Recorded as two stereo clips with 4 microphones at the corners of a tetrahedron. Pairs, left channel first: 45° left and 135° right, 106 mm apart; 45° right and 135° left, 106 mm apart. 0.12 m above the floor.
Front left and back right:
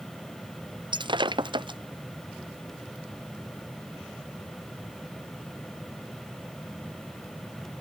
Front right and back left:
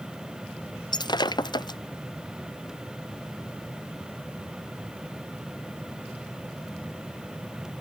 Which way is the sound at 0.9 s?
90° right.